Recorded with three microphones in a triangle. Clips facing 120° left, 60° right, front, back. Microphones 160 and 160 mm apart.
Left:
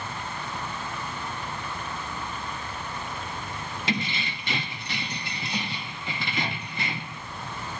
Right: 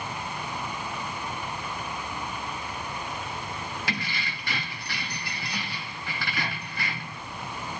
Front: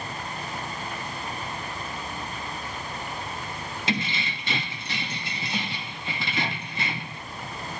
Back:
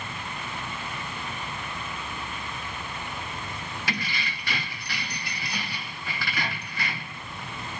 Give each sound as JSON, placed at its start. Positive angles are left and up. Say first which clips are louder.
{"t": 3.9, "sound": "keys jangling", "louder": "left 4 dB, front 5 dB", "azimuth_deg": 60, "distance_m": 0.5}